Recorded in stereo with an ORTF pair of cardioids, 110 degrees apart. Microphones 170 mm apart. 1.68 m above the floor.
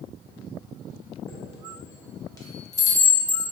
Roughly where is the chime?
Ahead.